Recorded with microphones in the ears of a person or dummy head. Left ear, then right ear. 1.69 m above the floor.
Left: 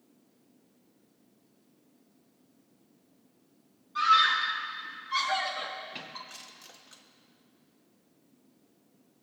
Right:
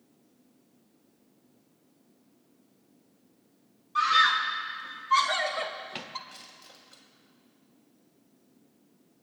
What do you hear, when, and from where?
4.0 s a scream: 25° right (ahead or behind), 3 m; by 6.2 s 45° right (ahead or behind), 0.8 m
6.3 s crushing: 45° left (ahead or behind), 1.3 m